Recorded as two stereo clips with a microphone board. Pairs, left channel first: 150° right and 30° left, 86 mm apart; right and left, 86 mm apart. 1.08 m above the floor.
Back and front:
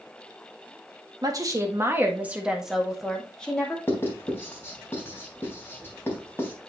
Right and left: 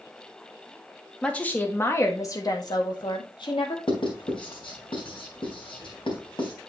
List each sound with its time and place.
1.2 s a woman speaking: 15° right, 1.5 m; by 3.8 s 75° right, 2 m
3.9 s writing: 85° right, 3.5 m